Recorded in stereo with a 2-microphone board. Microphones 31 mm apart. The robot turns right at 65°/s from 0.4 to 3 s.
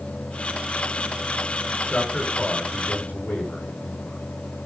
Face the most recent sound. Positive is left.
turn(degrees=70)  # may be behind; listen again after turning